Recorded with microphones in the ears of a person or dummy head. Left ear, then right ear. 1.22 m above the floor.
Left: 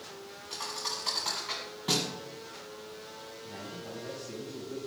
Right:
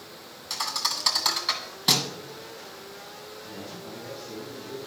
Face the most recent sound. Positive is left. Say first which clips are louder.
# right 1 dB
turn(degrees=10)  # may be behind; listen again after turning